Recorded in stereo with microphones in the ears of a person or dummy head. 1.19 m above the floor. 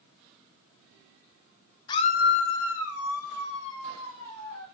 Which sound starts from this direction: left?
A scream, at 1.9 s.